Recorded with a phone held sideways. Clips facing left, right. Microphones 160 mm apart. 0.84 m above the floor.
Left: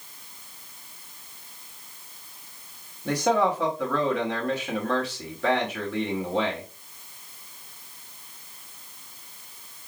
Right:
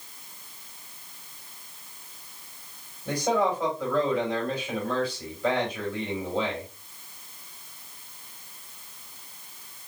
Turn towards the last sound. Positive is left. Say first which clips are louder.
# left 2 dB
turn(degrees=80)